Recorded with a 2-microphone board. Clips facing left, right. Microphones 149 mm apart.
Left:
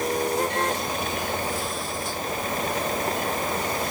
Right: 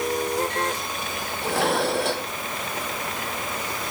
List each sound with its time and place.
1.4 s dishes clattering: 80° right